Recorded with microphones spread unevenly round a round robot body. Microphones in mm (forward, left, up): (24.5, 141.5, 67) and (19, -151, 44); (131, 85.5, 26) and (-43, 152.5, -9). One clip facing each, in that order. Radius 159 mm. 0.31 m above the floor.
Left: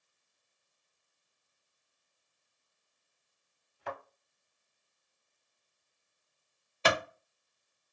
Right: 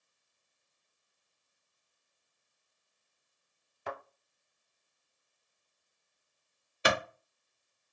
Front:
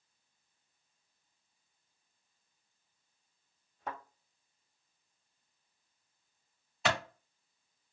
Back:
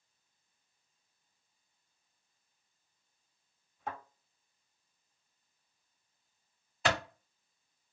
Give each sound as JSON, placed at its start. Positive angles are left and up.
{"t": 3.9, "sound": "a thud", "azimuth_deg": -85, "distance_m": 1.5}
{"t": 6.8, "sound": "a clap", "azimuth_deg": -135, "distance_m": 0.9}